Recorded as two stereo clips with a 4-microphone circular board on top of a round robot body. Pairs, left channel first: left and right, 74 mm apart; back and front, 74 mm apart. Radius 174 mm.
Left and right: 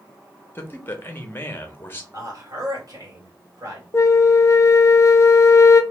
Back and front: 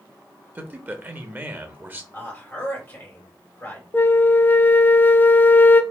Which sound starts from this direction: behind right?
A man speaking, at 2.1 s.